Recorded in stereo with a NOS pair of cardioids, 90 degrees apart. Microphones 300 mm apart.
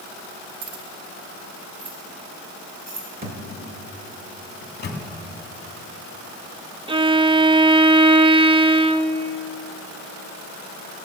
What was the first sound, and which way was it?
Keys jangling, 70° right.